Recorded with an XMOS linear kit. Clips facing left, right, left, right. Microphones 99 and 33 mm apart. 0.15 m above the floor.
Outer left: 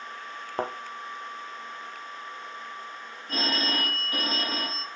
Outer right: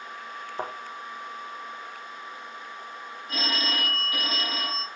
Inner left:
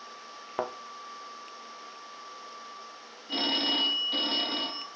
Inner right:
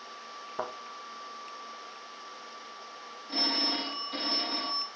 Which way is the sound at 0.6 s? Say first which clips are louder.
Outer left 4 dB, inner left 3 dB; 65° left (ahead or behind).